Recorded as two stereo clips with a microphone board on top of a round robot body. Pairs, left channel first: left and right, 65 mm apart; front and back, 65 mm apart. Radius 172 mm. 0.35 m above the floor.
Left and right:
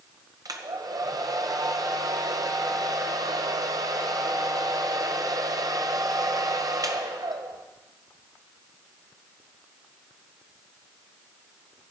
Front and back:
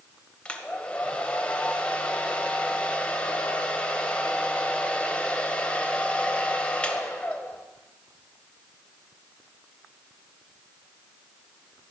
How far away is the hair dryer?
About 1.9 m.